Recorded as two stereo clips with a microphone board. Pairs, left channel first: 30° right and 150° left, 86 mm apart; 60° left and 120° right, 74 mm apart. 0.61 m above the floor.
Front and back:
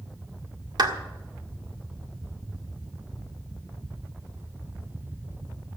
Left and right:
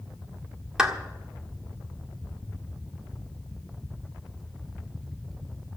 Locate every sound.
0.8 s a clap: 160° left, 1.6 m